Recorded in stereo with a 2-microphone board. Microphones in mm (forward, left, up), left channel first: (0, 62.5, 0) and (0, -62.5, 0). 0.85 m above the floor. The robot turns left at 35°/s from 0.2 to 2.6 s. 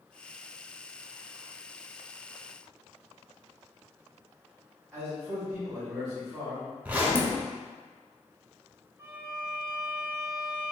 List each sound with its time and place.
4.9 s a man speaking: 20° right (ahead or behind), 1.6 m
6.8 s a zipper: 10° right (ahead or behind), 0.5 m
9.0 s a violin: 20° right (ahead or behind), 0.6 m